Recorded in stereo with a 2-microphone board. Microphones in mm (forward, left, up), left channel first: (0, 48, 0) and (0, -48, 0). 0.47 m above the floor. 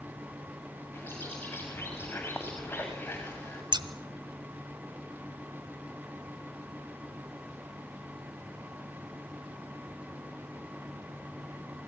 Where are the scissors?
50° right (ahead or behind), 1.5 m.